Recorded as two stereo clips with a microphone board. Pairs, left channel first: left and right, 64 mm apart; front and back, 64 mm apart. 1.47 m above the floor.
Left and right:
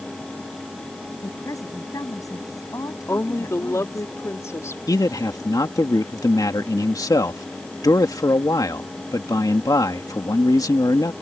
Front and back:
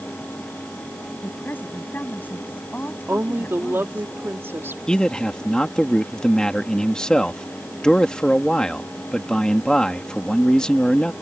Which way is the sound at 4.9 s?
80° left.